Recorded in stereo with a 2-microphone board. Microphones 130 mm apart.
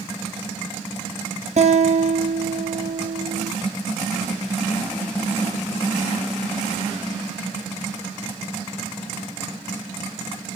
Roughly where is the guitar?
Right.